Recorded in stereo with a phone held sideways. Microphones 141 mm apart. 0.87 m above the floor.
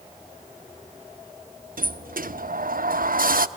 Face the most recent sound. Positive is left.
turn(degrees=-80)